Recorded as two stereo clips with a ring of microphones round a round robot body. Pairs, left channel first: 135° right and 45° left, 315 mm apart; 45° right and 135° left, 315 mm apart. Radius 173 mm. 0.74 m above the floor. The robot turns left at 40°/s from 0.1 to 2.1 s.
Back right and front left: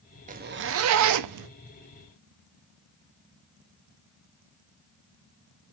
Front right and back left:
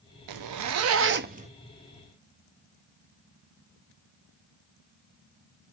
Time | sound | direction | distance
0.3 | a zipper | 115° left | 0.6 m